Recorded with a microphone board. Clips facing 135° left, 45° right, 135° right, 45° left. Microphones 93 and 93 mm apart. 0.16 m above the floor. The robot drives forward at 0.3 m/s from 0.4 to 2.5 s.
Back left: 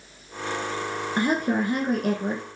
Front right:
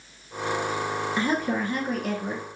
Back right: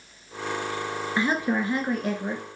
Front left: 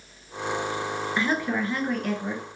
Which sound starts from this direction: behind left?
A woman speaking, at 1.2 s.